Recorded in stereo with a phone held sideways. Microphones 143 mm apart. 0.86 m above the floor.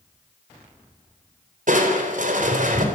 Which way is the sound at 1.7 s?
65° right (ahead or behind).